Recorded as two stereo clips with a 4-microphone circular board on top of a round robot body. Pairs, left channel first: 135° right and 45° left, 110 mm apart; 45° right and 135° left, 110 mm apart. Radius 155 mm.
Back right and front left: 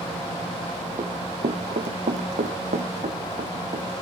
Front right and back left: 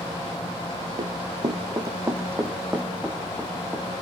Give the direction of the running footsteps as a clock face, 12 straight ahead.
9 o'clock.